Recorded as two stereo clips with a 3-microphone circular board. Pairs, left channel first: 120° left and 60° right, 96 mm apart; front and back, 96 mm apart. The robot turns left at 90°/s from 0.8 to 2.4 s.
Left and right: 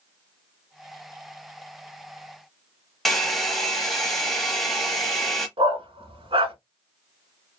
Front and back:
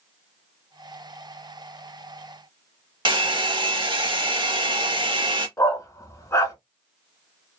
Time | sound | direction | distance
3.0 | a hair dryer | 150° right | 0.7 m
5.6 | a dog barking | 60° right | 1.0 m